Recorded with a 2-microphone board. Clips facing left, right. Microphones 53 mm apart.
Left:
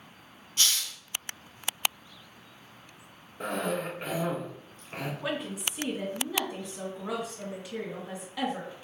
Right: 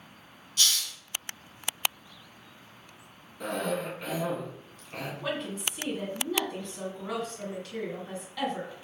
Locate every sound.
0.6 s a hiss: 35° left (ahead or behind), 0.9 m
3.4 s a cough: 30° left (ahead or behind), 1.9 m
5.2 s a woman speaking: 10° left (ahead or behind), 1.8 m